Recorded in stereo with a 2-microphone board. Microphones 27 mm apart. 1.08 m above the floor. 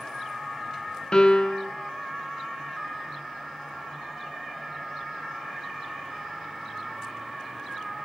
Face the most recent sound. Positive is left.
turn(degrees=35)  # may be behind; listen again after turning